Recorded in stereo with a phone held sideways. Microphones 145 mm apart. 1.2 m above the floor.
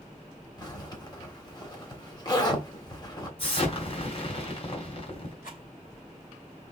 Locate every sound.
0.6 s a zipper: 30° left (ahead or behind), 1.6 m
3.4 s an explosion: 40° left (ahead or behind), 1.9 m
5.4 s a rattle: 80° left, 2.5 m